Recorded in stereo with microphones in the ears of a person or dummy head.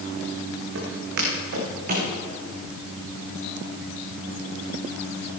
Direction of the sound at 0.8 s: 65° right (ahead or behind).